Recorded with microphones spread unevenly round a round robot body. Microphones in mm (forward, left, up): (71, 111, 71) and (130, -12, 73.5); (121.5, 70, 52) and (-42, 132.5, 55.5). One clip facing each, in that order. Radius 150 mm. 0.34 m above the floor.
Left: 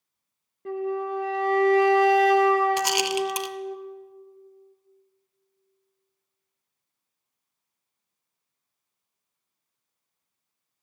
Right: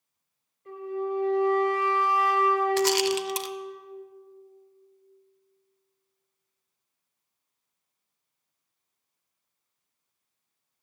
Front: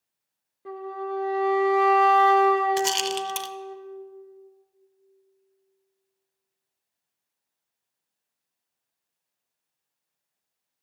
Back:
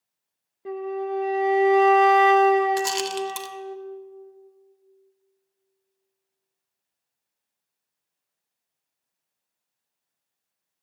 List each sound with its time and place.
0.7 s a flute: 85° left, 0.6 m
2.8 s a rattle: 40° left, 0.6 m